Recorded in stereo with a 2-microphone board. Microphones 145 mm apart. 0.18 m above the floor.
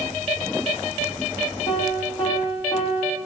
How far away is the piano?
About 3 m.